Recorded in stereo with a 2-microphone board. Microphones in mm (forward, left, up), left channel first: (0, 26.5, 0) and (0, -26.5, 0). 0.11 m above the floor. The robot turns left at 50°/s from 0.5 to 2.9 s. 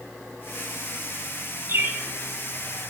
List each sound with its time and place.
1.7 s a bird: 45° right (ahead or behind), 2 m; by 2.0 s 35° right (ahead or behind), 2 m